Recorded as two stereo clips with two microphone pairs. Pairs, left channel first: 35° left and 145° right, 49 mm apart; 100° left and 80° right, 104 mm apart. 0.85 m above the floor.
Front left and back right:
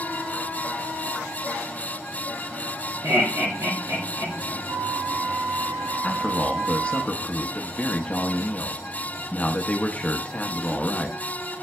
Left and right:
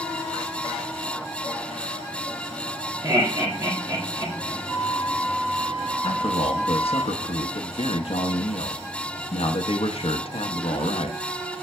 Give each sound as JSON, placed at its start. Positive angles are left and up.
{"t": 3.0, "sound": "laughter", "azimuth_deg": -135, "distance_m": 1.7}
{"t": 4.7, "sound": "a flute", "azimuth_deg": -150, "distance_m": 3.5}
{"t": 6.0, "sound": "a man speaking", "azimuth_deg": 95, "distance_m": 0.7}